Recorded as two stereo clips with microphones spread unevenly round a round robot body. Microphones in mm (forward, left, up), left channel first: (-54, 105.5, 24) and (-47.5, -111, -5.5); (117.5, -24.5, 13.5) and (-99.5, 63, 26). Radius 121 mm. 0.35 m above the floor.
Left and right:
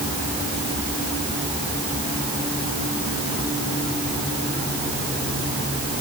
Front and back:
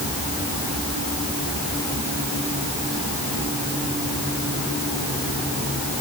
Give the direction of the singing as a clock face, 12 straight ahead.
I don't hear singing.